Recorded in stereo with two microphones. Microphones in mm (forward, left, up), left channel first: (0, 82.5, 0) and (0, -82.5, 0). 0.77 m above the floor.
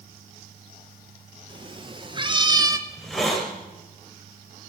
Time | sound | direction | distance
1.5 | a cat meowing | 30° right (ahead or behind) | 1.4 m
2.9 | a hiss | centre (ahead or behind) | 1.8 m